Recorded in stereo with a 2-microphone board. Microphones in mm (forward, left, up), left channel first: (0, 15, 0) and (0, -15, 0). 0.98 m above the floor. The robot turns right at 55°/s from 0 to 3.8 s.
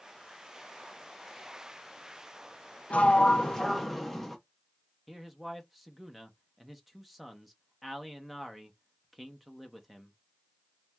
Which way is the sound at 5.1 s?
5° right (ahead or behind).